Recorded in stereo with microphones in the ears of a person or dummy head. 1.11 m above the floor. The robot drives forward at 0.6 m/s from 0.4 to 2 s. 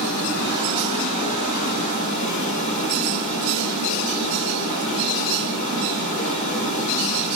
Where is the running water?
45° left (ahead or behind), 1.7 m; by 7.4 s 30° left (ahead or behind), 2.5 m.